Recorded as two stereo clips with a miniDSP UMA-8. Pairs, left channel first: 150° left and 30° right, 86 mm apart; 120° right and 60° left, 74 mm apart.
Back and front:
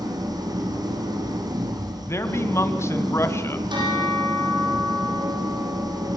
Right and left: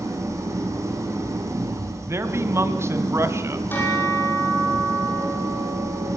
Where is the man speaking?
100° left, 2.5 m.